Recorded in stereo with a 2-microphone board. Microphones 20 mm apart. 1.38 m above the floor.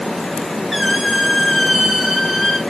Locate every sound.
0.7 s a squeak: centre (ahead or behind), 3.5 m